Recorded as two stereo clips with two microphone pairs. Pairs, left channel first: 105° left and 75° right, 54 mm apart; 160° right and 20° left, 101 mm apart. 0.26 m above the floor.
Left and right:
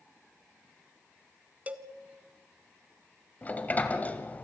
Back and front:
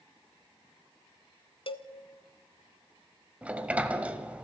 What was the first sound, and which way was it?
A cowbell, 135° right.